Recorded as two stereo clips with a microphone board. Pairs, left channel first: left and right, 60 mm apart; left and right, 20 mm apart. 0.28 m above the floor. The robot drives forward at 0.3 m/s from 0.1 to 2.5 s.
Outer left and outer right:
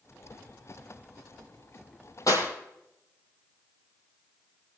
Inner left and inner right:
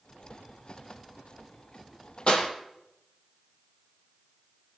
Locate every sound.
2.3 s a clap: 65° left (ahead or behind), 5.5 m